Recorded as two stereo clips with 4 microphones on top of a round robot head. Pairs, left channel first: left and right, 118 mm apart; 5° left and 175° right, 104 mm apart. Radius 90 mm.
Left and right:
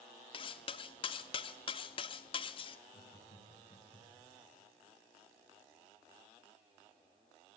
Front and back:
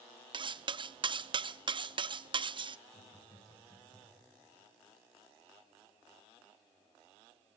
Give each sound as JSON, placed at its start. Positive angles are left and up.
{"t": 0.3, "sound": "cutlery clinking", "azimuth_deg": 140, "distance_m": 0.7}
{"t": 2.9, "sound": "laughter", "azimuth_deg": 55, "distance_m": 7.0}